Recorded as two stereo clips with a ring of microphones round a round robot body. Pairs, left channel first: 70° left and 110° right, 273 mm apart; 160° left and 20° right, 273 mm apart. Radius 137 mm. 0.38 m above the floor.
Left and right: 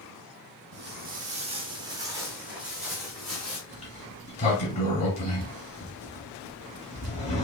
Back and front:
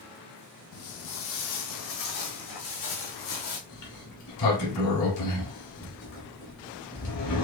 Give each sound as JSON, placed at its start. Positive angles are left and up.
{"t": 0.7, "sound": "footsteps", "azimuth_deg": -160, "distance_m": 0.9}
{"t": 3.7, "sound": "a sliding door", "azimuth_deg": 135, "distance_m": 2.0}